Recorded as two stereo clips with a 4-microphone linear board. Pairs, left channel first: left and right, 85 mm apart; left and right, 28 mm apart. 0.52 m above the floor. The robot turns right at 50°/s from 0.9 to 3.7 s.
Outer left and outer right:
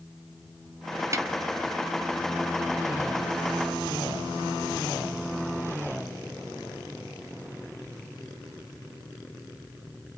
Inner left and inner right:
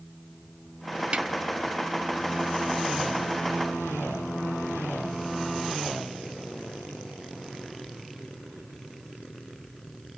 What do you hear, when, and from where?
1.1 s a snare drum: 35° right (ahead or behind), 0.5 m